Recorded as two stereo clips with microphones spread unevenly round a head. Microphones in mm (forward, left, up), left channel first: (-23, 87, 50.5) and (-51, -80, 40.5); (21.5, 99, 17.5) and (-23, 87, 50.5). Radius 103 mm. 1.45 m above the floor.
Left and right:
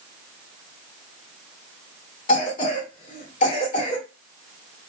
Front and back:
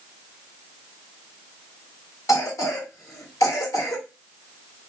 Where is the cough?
30° left, 1.7 m.